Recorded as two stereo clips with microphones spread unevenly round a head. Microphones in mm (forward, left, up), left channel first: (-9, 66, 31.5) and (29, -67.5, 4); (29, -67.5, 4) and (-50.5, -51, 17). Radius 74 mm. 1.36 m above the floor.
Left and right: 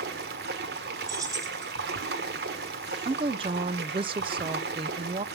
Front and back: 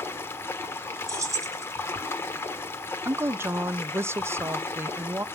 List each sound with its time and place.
0.0 s running water: 75° right, 1.4 m
1.1 s keys jangling: 145° right, 1.8 m
3.0 s a woman speaking: 130° right, 0.5 m